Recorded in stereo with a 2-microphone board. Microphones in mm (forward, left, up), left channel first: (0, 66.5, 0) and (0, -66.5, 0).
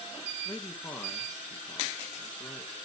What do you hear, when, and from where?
0.5 s a man speaking: 10° left (ahead or behind), 1.9 m